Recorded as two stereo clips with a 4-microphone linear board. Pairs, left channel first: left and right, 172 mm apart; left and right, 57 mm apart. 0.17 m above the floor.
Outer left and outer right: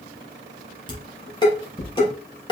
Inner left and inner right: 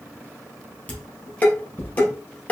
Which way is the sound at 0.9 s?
25° left (ahead or behind).